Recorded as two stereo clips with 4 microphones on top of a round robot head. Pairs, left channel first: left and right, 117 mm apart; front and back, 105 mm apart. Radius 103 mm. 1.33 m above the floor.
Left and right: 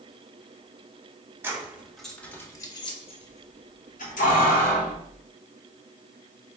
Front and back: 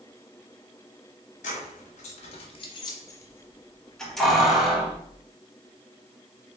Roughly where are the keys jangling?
Ahead.